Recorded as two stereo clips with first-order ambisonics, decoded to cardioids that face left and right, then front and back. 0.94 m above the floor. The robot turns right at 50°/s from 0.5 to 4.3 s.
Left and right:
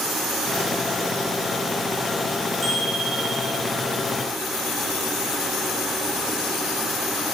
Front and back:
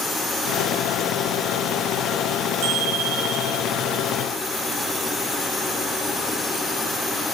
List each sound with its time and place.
2.6 s a bicycle bell: 170° right, 4.5 m; by 3.6 s 120° right, 4.5 m